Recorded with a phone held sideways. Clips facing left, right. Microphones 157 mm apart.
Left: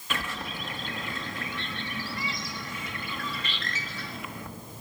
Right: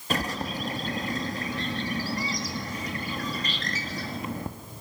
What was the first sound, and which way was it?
A bird, 35° right (ahead or behind).